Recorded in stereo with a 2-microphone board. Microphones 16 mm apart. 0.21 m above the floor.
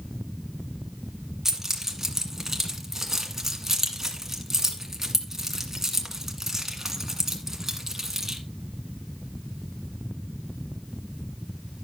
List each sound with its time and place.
1.4 s keys jangling: 20° right (ahead or behind), 1.7 m